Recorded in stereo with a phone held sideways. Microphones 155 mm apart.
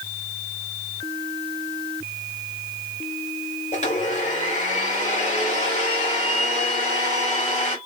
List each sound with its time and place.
3.7 s a blender: 55° left (ahead or behind), 2.5 m